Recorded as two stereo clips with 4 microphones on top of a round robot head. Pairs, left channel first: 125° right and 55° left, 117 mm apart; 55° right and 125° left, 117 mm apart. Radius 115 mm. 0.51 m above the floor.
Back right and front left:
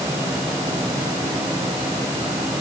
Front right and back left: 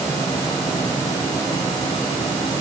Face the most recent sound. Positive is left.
No sound to turn to.